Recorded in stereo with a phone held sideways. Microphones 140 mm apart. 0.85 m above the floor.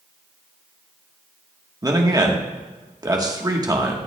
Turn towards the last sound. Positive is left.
turn(degrees=-25)  # may be behind; listen again after turning